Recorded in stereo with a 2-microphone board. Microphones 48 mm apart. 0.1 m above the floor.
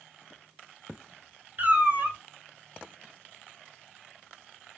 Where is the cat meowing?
40° right (ahead or behind), 0.8 m.